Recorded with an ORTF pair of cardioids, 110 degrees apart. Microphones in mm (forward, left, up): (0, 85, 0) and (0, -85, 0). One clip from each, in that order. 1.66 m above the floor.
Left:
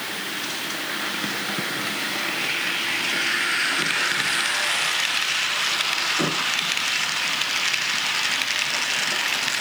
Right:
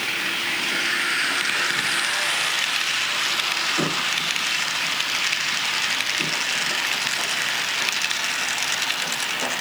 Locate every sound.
Only background noise.